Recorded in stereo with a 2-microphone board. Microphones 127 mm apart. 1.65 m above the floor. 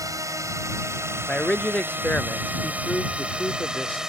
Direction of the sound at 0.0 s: 25° right (ahead or behind).